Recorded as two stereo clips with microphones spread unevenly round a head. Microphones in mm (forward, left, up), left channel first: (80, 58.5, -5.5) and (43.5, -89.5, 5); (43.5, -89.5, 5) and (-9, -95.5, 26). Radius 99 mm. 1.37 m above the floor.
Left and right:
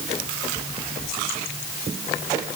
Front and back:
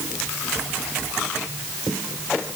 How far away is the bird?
I don't hear a bird.